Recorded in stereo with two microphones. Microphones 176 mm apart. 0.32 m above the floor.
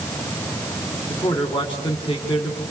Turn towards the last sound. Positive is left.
turn(degrees=30)  # may be behind; listen again after turning